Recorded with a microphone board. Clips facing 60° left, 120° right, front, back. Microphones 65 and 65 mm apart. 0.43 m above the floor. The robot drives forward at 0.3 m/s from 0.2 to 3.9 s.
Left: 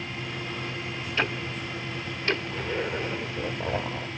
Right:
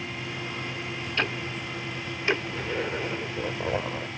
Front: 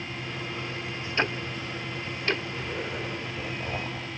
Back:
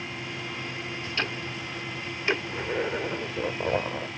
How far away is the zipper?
About 0.7 m.